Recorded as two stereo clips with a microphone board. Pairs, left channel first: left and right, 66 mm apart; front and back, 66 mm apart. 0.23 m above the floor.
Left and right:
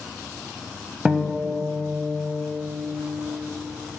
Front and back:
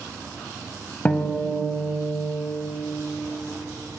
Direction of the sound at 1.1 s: 25° right.